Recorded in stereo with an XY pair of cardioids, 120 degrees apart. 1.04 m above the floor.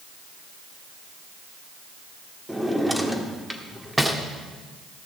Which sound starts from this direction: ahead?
A drawer, at 2.5 s.